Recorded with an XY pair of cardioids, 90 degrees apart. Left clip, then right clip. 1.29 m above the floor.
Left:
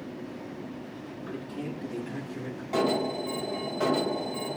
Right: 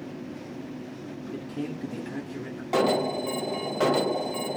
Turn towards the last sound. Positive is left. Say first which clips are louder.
# right 3 dB
turn(degrees=-50)